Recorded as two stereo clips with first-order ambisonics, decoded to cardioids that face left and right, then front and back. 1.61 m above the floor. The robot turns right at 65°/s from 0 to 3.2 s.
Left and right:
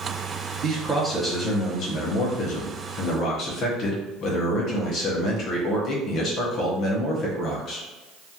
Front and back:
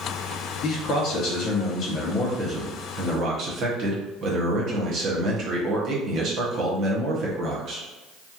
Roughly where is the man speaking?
Ahead right.